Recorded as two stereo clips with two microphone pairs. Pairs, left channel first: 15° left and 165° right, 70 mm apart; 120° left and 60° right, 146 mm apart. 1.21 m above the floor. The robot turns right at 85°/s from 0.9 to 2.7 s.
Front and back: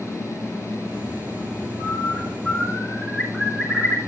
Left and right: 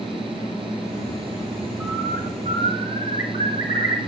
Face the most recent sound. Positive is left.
turn(degrees=105)